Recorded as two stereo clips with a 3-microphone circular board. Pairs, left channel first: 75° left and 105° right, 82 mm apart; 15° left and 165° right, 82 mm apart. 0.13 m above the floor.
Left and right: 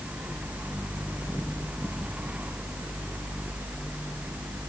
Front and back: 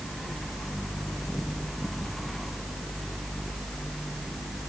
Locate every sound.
Only background noise.